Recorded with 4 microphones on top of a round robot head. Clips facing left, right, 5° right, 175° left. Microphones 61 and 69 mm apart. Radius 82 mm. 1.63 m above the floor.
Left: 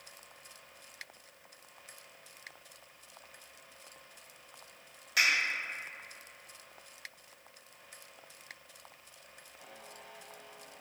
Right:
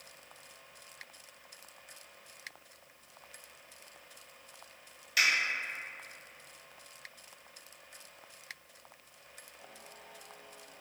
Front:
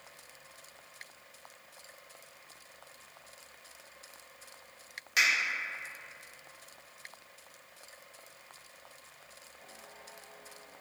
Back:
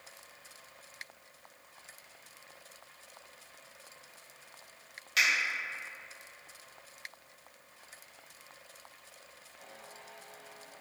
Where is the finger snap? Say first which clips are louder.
Even, front 1 dB; 60° left, 1.7 m.